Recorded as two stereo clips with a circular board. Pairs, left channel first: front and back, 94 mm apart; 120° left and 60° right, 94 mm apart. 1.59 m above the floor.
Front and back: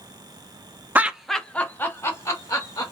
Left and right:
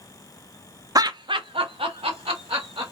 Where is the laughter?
110° right, 0.5 m; by 2.9 s 50° right, 1.4 m.